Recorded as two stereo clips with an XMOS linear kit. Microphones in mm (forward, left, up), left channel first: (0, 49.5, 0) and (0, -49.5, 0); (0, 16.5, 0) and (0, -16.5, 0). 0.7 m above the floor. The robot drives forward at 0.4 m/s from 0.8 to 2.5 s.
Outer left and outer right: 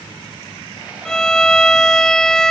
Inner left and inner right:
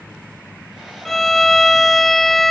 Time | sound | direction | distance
1.1 | a violin | 5° left (ahead or behind) | ?